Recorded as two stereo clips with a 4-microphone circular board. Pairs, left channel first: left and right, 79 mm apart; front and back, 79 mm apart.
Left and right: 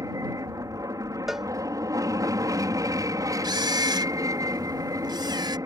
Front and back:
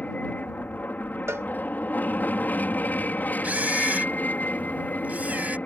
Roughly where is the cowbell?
Behind.